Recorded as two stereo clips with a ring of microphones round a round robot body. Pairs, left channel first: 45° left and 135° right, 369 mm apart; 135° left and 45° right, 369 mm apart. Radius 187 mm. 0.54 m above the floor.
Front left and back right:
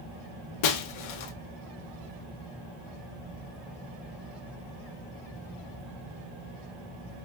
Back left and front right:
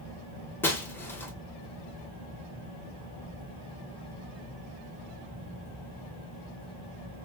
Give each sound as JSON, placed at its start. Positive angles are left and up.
{"t": 0.6, "sound": "breaking glass", "azimuth_deg": 50, "distance_m": 0.9}